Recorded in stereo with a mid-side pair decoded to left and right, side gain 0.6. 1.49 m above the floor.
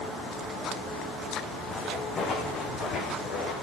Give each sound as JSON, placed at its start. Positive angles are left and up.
{"t": 1.7, "sound": "footsteps", "azimuth_deg": 40, "distance_m": 6.0}